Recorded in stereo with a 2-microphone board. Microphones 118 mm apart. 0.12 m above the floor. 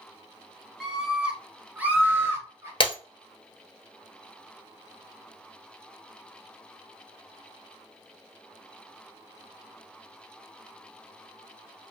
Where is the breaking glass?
50° left (ahead or behind), 0.7 m.